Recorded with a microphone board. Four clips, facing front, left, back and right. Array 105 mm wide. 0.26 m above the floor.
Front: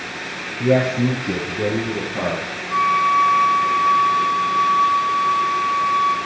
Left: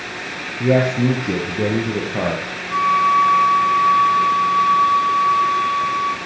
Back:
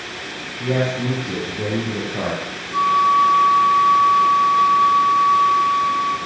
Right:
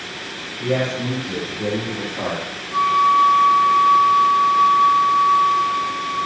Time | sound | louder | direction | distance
0.6 | a man speaking | left 6 dB, front 4 dB | 60° left | 4.5 m
2.7 | a flute | even, back 1 dB | 40° left | 3.5 m